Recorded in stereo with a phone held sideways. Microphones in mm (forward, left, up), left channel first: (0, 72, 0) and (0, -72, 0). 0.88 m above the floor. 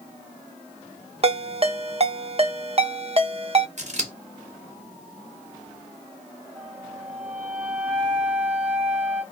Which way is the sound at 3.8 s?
55° right (ahead or behind).